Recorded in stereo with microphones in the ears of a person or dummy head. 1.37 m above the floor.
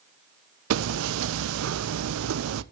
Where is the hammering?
85° right, 0.6 m.